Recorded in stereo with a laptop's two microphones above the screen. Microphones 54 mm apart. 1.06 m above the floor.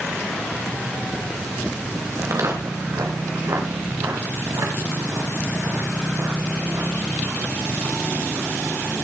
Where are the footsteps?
65° right (ahead or behind), 2.5 m; by 8.5 s 80° right, 9.5 m.